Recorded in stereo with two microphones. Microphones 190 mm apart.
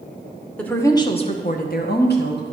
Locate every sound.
0.6 s a woman speaking: 5° left (ahead or behind), 1.0 m; by 2.5 s 60° left (ahead or behind), 1.3 m